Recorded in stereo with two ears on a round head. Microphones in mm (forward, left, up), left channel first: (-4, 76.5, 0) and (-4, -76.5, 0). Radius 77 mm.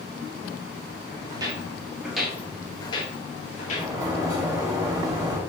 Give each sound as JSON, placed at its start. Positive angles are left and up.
{"t": 1.3, "sound": "footsteps", "side_deg": -25, "distance_m": 1.2}
{"t": 3.7, "sound": "a sliding door", "side_deg": -20, "distance_m": 1.0}